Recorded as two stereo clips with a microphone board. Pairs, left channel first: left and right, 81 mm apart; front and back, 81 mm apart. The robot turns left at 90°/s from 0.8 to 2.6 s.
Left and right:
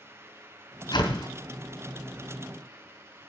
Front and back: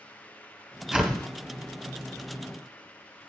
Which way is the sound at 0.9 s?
105° left.